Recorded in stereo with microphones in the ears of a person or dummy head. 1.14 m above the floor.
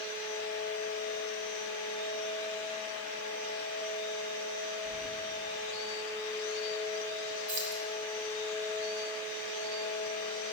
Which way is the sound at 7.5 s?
40° right (ahead or behind).